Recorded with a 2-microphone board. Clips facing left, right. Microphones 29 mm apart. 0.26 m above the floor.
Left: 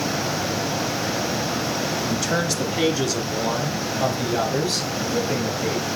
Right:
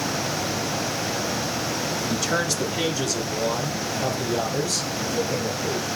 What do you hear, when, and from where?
2.1 s a man speaking: 5° right (ahead or behind), 1.2 m; by 5.9 s 40° left (ahead or behind), 5 m